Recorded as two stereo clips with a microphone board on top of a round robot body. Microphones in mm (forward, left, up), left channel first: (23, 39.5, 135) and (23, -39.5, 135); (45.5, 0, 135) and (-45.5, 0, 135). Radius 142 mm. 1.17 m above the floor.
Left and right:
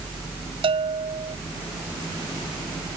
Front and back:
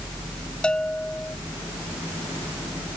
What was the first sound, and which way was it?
A bell, 80° right.